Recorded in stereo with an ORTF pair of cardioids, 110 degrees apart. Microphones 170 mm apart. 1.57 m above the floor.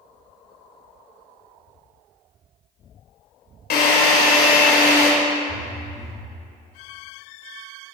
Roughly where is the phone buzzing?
Ahead.